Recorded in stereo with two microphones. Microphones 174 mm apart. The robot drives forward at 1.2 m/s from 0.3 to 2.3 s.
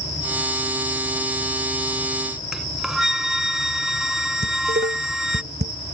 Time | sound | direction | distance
2.5 | a flute | 5° right (ahead or behind) | ?
4.4 | dishes clattering | 70° right (ahead or behind) | ?